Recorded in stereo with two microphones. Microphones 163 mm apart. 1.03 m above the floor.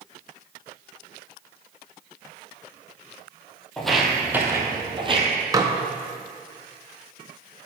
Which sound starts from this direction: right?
Dishes clattering, at 5.5 s.